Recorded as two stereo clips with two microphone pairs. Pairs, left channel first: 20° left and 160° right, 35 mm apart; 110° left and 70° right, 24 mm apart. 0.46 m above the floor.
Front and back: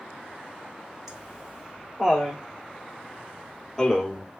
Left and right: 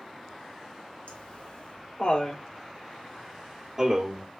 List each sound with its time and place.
1.1 s laughter: 130° left, 3 m; by 4.3 s 50° right, 1.8 m